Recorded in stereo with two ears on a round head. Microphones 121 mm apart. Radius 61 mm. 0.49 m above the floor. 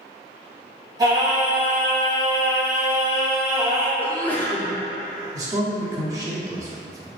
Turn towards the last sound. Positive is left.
turn(degrees=-25)  # may be behind; listen again after turning